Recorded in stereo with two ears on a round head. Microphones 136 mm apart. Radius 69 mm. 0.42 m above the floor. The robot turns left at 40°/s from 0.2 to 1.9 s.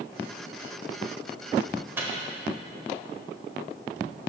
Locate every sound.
2.0 s a microwave: 15° right (ahead or behind), 1.3 m